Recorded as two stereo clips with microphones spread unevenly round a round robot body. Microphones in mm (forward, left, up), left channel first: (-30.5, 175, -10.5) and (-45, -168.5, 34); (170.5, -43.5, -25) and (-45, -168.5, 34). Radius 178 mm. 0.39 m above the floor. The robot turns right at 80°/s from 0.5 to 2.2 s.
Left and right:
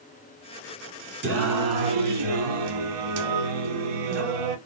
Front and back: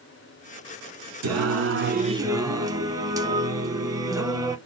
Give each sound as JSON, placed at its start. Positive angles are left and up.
{"t": 1.2, "sound": "singing", "azimuth_deg": -155, "distance_m": 0.7}